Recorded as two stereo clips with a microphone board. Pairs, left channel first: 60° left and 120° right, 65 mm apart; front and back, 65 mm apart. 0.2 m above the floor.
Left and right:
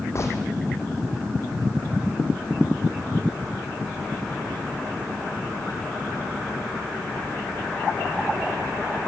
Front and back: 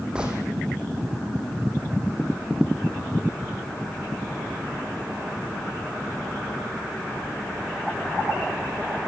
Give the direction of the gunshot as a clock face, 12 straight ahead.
9 o'clock.